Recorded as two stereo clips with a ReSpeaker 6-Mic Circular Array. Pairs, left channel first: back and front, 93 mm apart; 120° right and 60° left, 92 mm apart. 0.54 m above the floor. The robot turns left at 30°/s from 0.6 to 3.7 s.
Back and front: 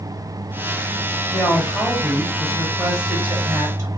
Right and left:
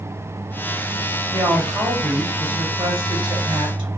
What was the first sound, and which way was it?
A woman speaking, 130° left.